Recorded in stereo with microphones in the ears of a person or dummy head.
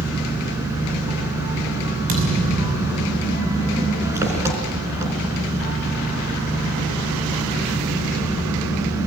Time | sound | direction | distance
0.0 | an engine running | 15° right (ahead or behind) | 4.5 m
2.1 | a thud | 40° right (ahead or behind) | 6 m